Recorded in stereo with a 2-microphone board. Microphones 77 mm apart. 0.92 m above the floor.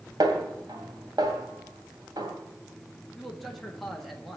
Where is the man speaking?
Centre (ahead or behind), 1.5 m.